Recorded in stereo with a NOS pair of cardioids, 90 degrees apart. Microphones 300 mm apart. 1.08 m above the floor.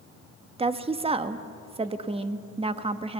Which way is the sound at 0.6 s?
20° right.